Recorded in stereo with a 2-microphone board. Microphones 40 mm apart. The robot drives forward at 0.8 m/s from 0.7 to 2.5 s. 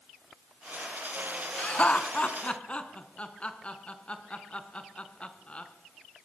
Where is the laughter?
35° left (ahead or behind), 2.5 m; by 5.7 s 25° left (ahead or behind), 3 m.